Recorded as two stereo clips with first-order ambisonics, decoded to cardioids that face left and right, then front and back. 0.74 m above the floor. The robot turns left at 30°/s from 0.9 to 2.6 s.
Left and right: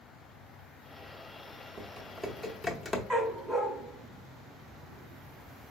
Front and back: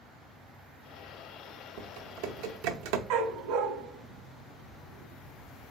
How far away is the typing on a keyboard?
About 0.7 m.